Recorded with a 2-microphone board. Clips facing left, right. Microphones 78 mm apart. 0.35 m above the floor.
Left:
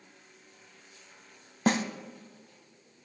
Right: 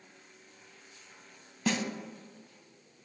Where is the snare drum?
45° left (ahead or behind), 0.7 m.